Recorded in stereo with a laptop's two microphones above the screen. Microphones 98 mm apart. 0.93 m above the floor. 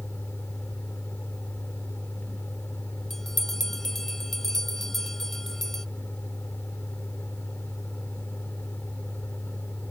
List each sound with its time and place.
0.0 s a fan: 20° left (ahead or behind)
3.1 s a bell: 5° left (ahead or behind)